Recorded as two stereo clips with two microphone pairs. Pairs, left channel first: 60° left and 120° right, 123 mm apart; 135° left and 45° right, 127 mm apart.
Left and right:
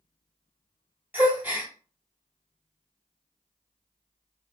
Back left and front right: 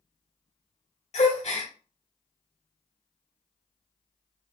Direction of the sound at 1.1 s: 165° left.